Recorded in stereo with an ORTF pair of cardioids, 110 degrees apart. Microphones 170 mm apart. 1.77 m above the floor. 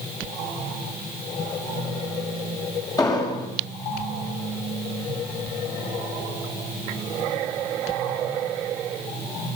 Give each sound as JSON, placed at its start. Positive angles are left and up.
{"t": 3.0, "sound": "an explosion", "azimuth_deg": 25, "distance_m": 8.0}